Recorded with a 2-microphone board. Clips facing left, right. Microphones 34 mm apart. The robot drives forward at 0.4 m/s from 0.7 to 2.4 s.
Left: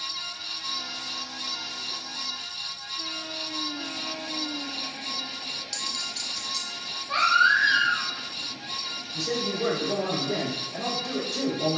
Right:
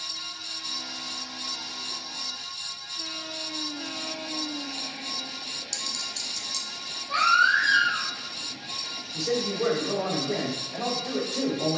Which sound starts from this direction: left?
A baby crying, at 7.1 s.